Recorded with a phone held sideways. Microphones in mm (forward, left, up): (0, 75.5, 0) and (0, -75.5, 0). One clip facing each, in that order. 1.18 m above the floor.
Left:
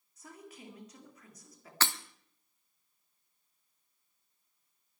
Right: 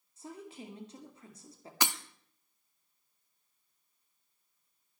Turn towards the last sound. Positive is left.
turn(degrees=-15)  # may be behind; listen again after turning